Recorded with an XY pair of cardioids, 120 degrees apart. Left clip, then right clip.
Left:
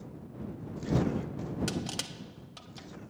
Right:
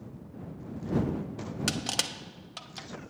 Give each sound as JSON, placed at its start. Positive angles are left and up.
{"t": 1.7, "sound": "crushing", "azimuth_deg": -50}